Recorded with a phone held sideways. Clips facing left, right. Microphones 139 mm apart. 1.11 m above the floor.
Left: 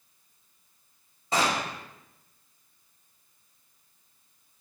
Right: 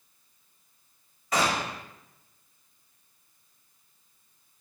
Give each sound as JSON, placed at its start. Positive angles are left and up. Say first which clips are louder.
{"t": 1.3, "sound": "a gunshot", "louder": "even", "side_deg": 30, "distance_m": 0.8}